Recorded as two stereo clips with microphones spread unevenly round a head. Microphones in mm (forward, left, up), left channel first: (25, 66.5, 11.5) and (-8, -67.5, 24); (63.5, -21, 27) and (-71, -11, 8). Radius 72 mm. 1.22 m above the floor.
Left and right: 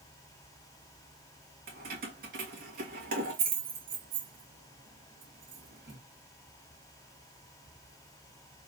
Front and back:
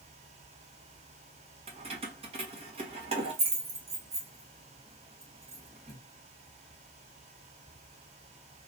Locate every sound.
1.7 s keys jangling: 135° right, 1.2 m